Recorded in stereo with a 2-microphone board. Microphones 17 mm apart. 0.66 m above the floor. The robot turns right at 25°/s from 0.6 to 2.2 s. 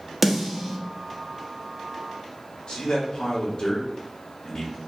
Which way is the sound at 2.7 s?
50° left (ahead or behind).